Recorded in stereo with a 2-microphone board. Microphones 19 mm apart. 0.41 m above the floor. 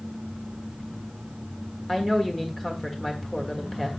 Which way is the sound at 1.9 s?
15° left (ahead or behind).